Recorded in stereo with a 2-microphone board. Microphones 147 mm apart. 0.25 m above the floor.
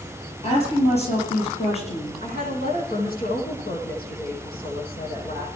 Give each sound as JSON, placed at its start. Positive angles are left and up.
{"t": 0.4, "sound": "a woman speaking", "side_deg": 45, "distance_m": 7.0}
{"t": 2.2, "sound": "a woman speaking", "side_deg": 85, "distance_m": 9.5}